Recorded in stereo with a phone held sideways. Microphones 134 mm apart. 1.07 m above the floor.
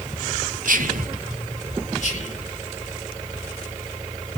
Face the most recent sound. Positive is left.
turn(degrees=60)  # may be behind; listen again after turning